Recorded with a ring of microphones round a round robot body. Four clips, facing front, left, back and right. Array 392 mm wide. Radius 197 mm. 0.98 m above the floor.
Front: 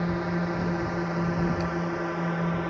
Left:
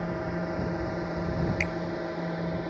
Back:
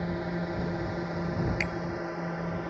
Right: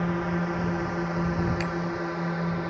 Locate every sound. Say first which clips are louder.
0.0 s a drone: right 4 dB, front 4 dB; 55° right; by 2.7 s 35° right
1.6 s a bicycle bell: right 2 dB, front 4 dB; 170° right